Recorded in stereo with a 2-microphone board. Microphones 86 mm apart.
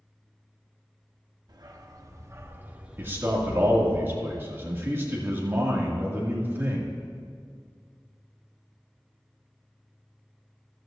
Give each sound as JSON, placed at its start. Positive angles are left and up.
{"t": 1.5, "sound": "a dog barking", "side_deg": -50, "distance_m": 1.1}
{"t": 3.0, "sound": "a man speaking", "side_deg": -25, "distance_m": 2.0}